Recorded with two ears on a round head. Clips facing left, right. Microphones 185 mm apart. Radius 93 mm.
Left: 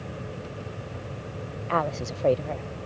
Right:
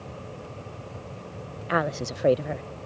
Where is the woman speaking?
15° right (ahead or behind).